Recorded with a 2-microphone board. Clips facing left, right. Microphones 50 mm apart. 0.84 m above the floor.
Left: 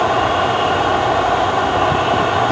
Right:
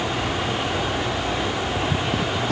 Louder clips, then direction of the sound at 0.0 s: Left 10 dB; 50° left (ahead or behind).